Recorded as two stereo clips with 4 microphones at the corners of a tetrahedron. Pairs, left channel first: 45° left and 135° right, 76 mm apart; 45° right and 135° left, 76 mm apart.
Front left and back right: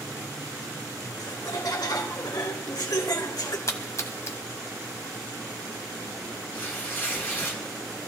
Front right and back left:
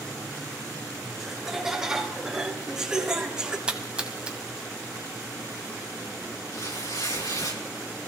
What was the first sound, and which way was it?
Laughter, 50° left.